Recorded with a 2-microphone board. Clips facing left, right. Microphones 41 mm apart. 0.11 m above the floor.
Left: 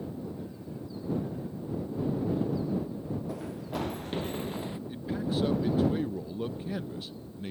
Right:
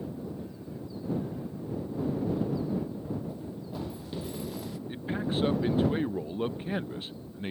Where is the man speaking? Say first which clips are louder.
Right 1 dB; 35° right (ahead or behind).